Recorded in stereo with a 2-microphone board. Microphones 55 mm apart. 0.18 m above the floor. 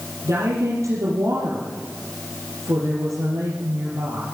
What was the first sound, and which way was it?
A woman speaking, 65° right (ahead or behind).